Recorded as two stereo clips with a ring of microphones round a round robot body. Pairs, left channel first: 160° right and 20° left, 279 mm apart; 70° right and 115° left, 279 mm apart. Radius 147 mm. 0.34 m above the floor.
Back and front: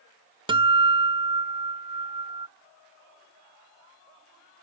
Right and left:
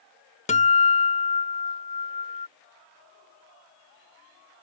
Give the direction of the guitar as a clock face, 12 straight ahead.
1 o'clock.